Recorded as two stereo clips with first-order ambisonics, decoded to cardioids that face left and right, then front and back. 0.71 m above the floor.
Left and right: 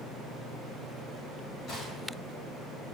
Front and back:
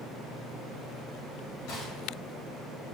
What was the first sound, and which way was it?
A gunshot, 30° left.